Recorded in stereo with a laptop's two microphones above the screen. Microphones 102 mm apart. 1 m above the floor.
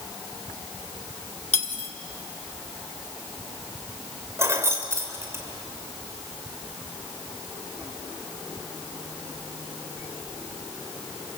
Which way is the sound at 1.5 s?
75° left (ahead or behind).